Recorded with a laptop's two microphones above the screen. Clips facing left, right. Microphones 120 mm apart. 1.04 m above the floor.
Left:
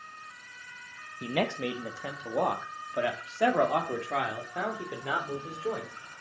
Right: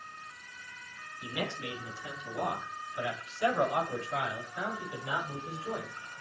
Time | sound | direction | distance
1.2 | a man speaking | 65° left (ahead or behind) | 1.6 m